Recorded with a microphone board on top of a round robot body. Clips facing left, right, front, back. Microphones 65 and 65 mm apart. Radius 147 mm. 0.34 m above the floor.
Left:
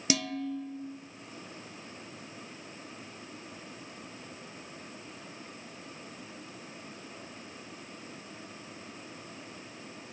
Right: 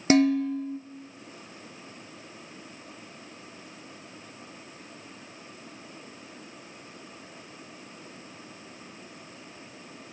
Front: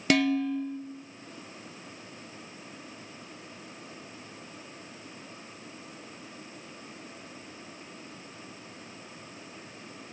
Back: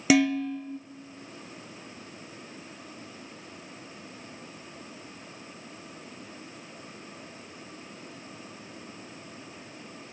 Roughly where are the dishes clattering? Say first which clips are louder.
Right 12 dB, back 2 dB; right.